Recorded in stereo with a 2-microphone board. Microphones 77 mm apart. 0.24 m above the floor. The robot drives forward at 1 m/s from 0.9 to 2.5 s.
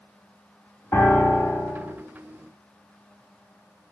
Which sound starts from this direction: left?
A piano, at 0.9 s.